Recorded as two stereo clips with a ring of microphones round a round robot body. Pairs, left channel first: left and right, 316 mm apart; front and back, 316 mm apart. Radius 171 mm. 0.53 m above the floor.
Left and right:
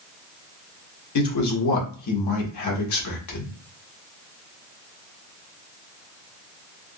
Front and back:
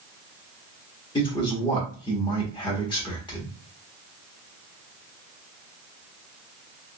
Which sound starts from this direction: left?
A man speaking, at 1.1 s.